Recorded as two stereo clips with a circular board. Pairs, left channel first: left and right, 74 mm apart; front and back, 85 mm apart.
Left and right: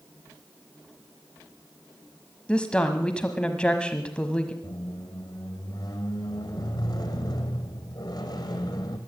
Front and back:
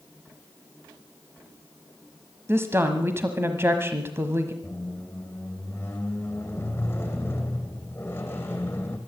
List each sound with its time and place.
2.5 s a woman speaking: 155° left, 1.1 m
4.6 s a squeak: 65° left, 2.5 m